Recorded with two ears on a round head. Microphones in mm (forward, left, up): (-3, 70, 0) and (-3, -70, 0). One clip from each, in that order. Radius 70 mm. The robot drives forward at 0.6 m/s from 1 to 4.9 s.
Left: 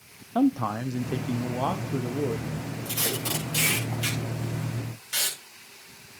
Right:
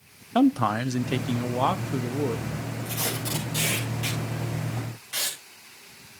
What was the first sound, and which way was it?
A man speaking, 60° right (ahead or behind).